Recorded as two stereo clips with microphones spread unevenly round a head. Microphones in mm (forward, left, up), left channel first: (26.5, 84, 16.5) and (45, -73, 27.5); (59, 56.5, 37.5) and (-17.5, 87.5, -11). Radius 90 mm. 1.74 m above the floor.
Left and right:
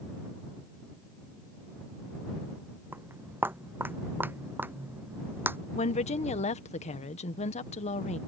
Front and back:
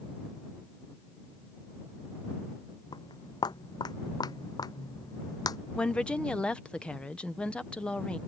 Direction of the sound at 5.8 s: 50° left.